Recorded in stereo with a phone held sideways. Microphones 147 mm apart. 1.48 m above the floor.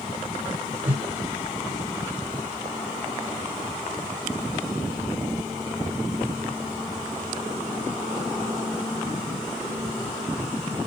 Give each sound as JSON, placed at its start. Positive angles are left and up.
{"t": 0.8, "sound": "a whoosh", "side_deg": -15, "distance_m": 2.5}